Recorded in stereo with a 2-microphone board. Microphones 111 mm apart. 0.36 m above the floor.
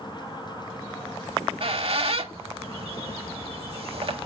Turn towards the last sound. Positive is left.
turn(degrees=-60)  # may be behind; listen again after turning